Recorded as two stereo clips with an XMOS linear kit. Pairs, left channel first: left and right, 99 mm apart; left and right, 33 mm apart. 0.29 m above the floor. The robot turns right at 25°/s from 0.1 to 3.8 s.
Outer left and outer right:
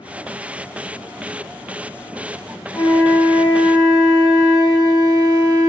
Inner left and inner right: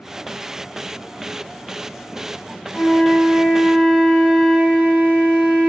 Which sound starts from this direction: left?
A flute, at 2.7 s.